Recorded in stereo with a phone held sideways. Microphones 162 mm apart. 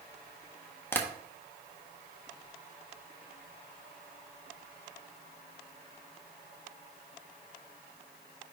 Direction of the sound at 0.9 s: 15° left (ahead or behind).